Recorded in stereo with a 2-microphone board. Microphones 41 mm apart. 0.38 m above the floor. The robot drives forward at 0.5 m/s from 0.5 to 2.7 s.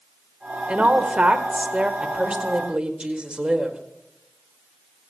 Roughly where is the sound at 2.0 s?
Right.